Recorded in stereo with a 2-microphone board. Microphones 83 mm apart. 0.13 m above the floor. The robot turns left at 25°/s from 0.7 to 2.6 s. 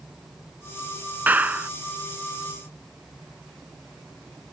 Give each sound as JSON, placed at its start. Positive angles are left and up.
{"t": 1.3, "sound": "a clap", "side_deg": -20}